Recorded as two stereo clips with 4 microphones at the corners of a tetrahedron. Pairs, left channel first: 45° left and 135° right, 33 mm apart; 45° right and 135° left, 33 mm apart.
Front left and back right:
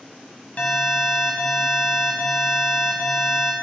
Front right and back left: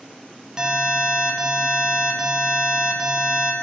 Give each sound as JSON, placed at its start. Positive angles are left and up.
{"t": 0.6, "sound": "an alarm", "azimuth_deg": 70, "distance_m": 1.4}